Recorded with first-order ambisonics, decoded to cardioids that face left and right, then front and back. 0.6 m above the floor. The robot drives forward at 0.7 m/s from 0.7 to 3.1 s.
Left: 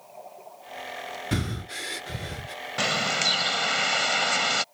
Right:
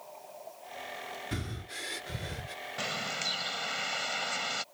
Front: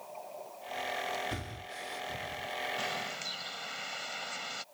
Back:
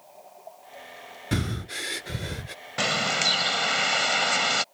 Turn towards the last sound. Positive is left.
turn(degrees=145)